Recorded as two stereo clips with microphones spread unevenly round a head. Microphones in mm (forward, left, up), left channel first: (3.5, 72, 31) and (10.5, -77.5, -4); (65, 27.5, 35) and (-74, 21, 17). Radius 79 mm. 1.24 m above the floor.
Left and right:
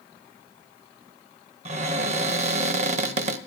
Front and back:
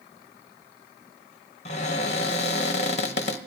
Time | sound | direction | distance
1.6 | a cupboard door | 35° right | 0.7 m